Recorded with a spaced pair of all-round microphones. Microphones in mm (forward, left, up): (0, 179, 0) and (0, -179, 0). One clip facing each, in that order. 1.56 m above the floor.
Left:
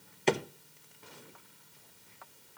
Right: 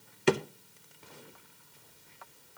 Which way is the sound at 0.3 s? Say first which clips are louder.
Right 3 dB; 20° right (ahead or behind).